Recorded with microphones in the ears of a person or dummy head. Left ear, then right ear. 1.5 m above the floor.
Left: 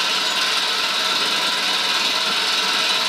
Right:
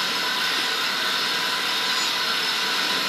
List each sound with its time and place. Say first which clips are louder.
0.0 s an engine running: left 4 dB; 65° left (ahead or behind), 2.5 m